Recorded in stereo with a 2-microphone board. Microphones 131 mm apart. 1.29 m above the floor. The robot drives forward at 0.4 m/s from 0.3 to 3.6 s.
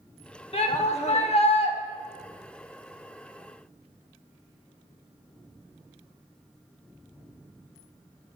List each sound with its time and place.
0.5 s a shout: 50° left (ahead or behind), 0.9 m